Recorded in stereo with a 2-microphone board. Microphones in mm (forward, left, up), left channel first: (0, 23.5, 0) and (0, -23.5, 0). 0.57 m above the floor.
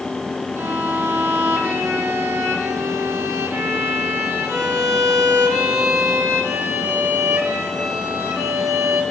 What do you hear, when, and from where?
0.6 s a violin: 80° right, 4 m